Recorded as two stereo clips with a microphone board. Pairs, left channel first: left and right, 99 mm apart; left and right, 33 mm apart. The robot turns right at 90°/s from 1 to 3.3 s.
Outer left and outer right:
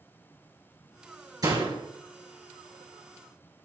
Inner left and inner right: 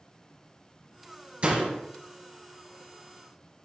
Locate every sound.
1.4 s a door slam: 140° right, 3.5 m; by 1.8 s 110° right, 3.5 m